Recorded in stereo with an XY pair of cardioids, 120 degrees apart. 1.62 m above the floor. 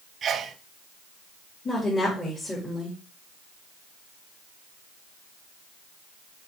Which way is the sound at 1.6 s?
20° left.